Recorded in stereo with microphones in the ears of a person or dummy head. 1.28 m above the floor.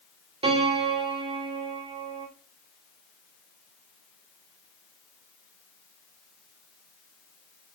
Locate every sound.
0.4 s a piano: 25° right (ahead or behind), 1.5 m